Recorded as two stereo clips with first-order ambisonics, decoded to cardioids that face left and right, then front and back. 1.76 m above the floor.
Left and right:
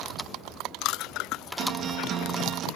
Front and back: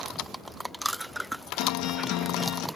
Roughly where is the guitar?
Ahead right.